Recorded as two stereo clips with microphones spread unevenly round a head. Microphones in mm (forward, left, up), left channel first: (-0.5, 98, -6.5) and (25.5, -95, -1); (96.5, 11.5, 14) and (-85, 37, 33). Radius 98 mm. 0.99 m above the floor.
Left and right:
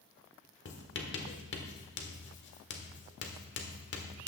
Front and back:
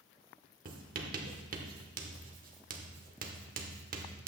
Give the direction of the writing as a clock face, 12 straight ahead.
8 o'clock.